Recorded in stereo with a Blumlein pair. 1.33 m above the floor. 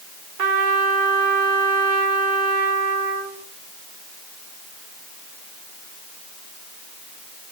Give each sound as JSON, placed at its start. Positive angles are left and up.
{"t": 0.4, "sound": "a trumpet", "azimuth_deg": -40, "distance_m": 3.5}